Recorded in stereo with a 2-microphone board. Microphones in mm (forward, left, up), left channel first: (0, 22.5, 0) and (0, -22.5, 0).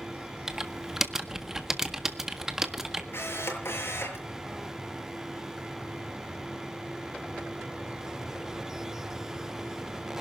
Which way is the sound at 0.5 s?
10° right (ahead or behind).